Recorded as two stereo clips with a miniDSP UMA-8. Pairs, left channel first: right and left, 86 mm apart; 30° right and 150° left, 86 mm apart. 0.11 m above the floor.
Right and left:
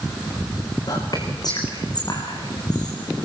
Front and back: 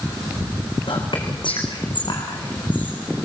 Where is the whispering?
50° right, 7.5 m.